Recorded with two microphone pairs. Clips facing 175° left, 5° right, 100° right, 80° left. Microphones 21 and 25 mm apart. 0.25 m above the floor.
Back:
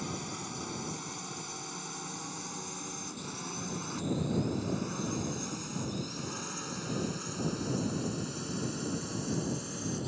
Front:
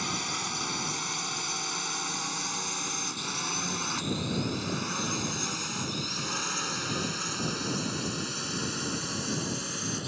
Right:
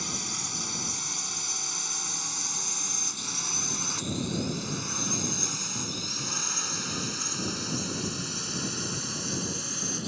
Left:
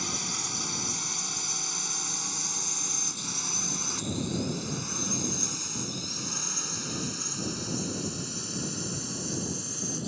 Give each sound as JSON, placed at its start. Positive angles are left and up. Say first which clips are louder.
{"t": 0.0, "sound": "a drone", "louder": "front 7 dB, left 1 dB", "azimuth_deg": -5}